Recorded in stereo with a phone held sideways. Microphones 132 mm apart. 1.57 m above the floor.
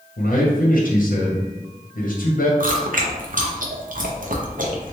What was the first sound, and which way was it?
A man speaking, 80° left.